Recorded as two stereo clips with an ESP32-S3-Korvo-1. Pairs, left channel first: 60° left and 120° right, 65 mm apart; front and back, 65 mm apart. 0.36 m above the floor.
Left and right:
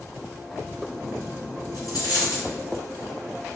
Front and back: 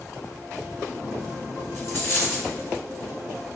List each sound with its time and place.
1.7 s a dropped coin: 45° left, 1.5 m